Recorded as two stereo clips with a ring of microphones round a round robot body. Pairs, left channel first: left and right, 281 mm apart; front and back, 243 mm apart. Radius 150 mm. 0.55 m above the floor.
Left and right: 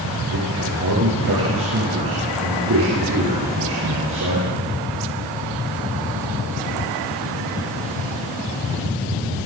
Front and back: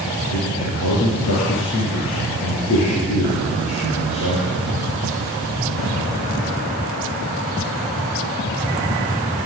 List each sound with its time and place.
0.3 s a man speaking: 40° right, 9 m